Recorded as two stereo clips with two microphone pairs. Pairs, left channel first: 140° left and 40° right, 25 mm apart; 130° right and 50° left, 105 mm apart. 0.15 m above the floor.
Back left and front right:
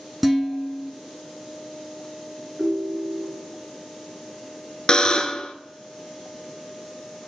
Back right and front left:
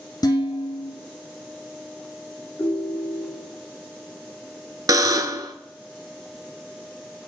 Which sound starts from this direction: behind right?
Dishes clattering, at 0.2 s.